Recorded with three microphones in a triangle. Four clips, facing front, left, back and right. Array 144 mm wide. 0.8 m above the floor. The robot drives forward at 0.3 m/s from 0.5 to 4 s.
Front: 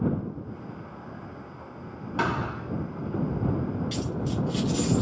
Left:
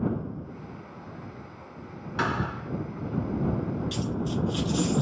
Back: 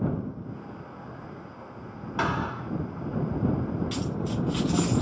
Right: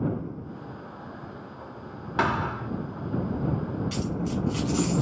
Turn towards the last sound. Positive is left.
turn(degrees=-165)